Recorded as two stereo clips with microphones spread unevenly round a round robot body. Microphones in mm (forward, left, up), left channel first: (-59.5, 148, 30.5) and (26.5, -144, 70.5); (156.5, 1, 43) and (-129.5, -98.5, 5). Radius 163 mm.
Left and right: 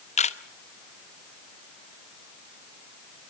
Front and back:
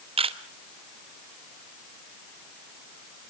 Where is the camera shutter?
150° left, 1.2 m.